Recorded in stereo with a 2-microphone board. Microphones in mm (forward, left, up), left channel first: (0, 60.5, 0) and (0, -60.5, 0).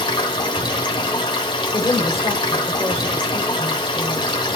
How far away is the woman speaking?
About 2 m.